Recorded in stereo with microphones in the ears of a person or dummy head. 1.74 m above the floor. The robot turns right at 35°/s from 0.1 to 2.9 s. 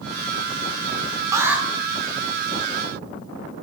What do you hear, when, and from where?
1.3 s an alarm: 15° right (ahead or behind), 1.3 m; by 1.6 s centre (ahead or behind), 1.3 m